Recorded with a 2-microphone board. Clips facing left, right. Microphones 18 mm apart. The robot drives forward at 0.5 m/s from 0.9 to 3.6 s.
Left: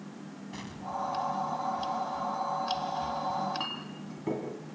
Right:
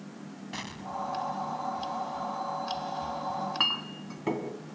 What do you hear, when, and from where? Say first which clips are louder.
0.5 s an explosion: even; 40° right (ahead or behind), 1.1 m; by 2.1 s 70° right (ahead or behind), 0.7 m
3.3 s a clink: right 4 dB; 45° right (ahead or behind), 2.5 m